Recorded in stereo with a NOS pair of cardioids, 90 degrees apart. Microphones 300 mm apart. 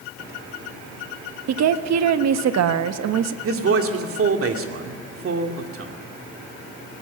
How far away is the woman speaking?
About 1.3 m.